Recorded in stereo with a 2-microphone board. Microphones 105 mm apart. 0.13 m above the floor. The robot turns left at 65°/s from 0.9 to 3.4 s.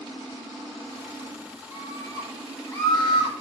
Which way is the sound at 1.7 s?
140° right.